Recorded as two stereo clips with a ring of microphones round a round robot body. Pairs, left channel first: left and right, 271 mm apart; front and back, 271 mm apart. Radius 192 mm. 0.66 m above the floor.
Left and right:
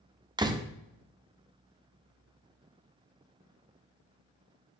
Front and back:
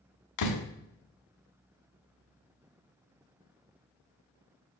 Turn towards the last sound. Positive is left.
turn(degrees=-15)